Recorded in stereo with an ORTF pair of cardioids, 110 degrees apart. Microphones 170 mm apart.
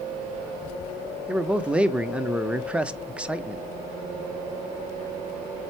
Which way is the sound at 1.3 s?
5° right.